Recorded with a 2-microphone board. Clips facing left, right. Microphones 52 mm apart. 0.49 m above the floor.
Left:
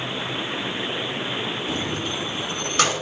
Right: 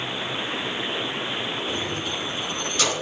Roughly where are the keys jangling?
Left.